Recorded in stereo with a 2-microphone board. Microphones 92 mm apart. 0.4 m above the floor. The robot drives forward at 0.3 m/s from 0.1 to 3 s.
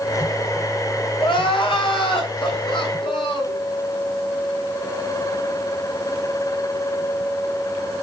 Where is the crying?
70° left (ahead or behind), 4 m; by 3.6 s 65° left (ahead or behind), 4 m.